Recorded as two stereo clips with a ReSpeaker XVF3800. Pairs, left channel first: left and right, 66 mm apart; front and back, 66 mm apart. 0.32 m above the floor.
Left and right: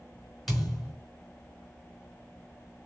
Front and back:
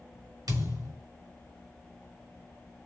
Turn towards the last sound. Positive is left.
turn(degrees=175)